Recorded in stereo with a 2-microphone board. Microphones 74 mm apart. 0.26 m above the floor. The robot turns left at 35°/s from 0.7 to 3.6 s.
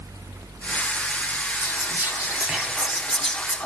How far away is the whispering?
About 2 m.